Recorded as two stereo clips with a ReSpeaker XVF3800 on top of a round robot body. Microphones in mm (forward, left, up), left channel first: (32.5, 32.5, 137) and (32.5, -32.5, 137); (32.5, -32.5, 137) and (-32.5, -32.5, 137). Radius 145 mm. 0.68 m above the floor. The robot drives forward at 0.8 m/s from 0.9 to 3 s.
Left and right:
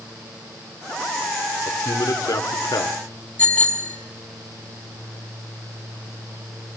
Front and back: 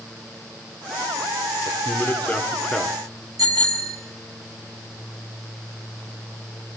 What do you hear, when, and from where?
1.6 s a man speaking: 55° left, 2 m; by 3.0 s 90° left, 1.7 m
3.4 s a bicycle bell: 160° left, 5 m